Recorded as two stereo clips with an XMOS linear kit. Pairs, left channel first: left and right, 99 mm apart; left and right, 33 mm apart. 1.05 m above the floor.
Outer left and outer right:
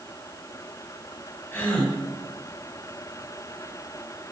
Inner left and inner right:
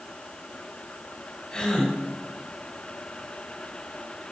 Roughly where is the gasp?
Centre.